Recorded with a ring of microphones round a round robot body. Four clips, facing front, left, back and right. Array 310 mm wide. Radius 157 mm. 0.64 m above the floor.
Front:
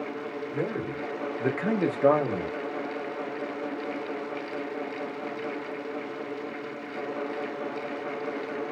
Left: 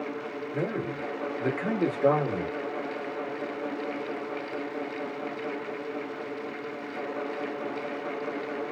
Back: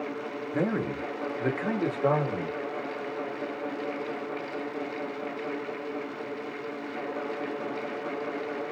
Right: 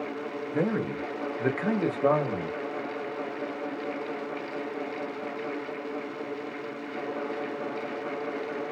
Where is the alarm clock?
No alarm clock in this recording.